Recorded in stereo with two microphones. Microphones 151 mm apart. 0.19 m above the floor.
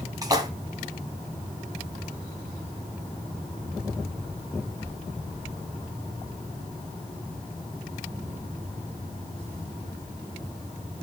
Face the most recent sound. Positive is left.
turn(degrees=-25)  # may be behind; listen again after turning